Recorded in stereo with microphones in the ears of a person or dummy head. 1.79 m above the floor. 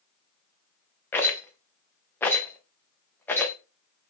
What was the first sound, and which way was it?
A rattle, 10° left (ahead or behind).